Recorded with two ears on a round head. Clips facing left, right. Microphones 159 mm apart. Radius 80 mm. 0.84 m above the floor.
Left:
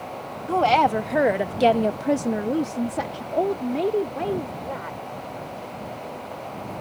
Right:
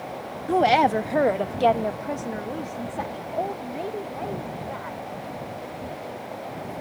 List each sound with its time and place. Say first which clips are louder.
0.5 s a woman speaking: even; 15° right (ahead or behind); by 5.0 s 50° left (ahead or behind)